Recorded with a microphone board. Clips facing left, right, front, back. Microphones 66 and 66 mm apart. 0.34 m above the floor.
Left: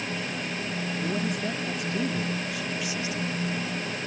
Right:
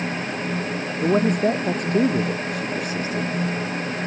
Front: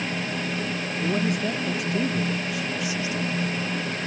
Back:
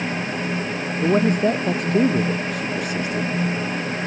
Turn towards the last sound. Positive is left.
turn(degrees=-140)